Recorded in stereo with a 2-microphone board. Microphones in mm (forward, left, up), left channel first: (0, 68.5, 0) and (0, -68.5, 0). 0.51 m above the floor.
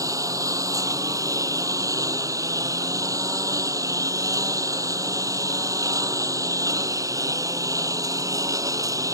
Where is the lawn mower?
25° right (ahead or behind).